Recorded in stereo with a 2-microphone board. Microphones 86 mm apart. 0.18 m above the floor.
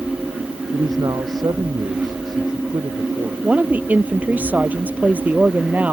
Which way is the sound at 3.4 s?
15° right (ahead or behind).